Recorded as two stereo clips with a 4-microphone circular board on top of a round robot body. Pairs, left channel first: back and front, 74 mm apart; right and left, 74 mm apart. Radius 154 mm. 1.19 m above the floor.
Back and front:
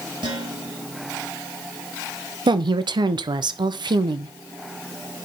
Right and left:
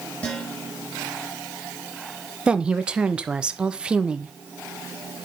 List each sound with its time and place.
0.2 s dishes clattering: 15° right, 5 m
2.5 s a woman speaking: 10° left, 0.8 m